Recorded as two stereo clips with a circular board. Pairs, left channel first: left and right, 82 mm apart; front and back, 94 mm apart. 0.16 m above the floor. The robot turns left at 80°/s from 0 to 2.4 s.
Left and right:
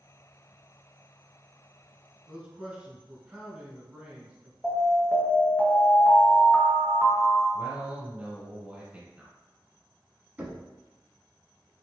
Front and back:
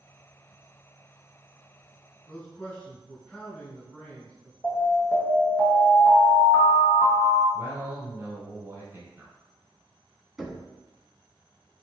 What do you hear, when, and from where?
2.3 s a man speaking: 45° right, 1.7 m; by 4.5 s 55° right, 1.7 m
4.6 s an alarm: 30° left, 1.3 m
7.5 s a man speaking: 140° right, 1.6 m
10.4 s knocking: 95° right, 0.7 m